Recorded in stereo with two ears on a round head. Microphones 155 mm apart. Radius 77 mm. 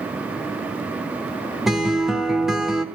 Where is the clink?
I don't hear a clink.